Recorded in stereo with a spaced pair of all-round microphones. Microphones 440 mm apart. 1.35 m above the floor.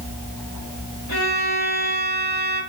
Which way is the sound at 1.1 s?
55° left (ahead or behind).